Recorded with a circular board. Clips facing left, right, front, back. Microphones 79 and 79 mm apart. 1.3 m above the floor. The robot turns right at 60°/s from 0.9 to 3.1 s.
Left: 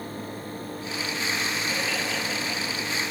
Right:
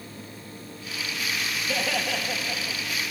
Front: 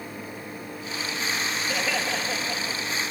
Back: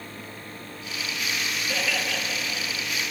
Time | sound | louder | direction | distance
1.7 | laughter | right 1 dB, front 1 dB | 85° right | 1.6 m